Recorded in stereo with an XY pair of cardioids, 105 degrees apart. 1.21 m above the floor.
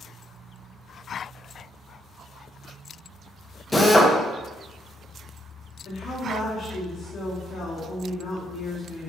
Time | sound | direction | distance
3.7 | a drill | 5° left | 1.5 m
5.8 | a woman speaking | 50° left | 3 m